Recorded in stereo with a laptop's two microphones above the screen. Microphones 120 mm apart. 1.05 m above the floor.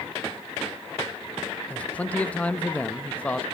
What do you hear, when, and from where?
1.7 s a man speaking: 10° left (ahead or behind), 1.0 m